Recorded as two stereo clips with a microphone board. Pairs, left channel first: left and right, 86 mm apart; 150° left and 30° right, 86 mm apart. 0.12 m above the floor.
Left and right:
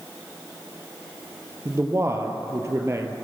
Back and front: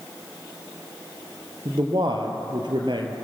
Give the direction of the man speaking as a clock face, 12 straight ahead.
1 o'clock.